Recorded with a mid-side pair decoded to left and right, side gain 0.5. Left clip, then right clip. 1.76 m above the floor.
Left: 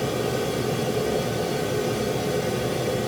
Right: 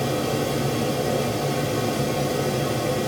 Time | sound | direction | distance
0.0 | a fan | 50° right | 0.8 m